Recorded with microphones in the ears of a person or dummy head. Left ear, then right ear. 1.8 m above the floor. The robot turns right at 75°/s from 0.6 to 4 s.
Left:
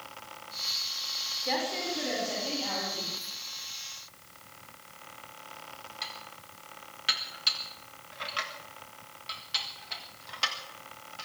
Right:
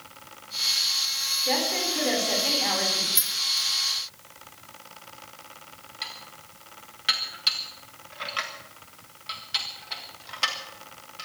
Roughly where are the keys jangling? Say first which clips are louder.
Right 12 dB; right.